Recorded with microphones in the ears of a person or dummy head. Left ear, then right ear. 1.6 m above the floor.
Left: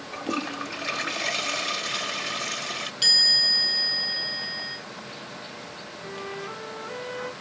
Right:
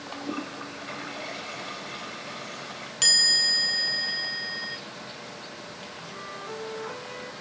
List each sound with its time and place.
0.1 s a toilet flushing: 80° left, 0.8 m
3.0 s a chime: 35° right (ahead or behind), 0.9 m
6.0 s a flute: 15° left (ahead or behind), 1.1 m